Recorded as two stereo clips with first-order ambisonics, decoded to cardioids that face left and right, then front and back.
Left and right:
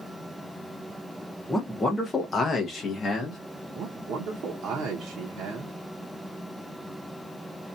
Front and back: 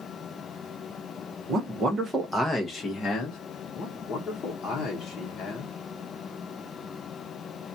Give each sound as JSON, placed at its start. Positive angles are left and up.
{"t": 1.5, "sound": "a man speaking", "azimuth_deg": 170, "distance_m": 0.8}
{"t": 3.8, "sound": "a man speaking", "azimuth_deg": -55, "distance_m": 0.8}